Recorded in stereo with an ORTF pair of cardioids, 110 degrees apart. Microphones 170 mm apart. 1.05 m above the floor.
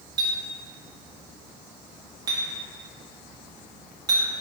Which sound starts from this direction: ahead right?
A clink, at 0.2 s.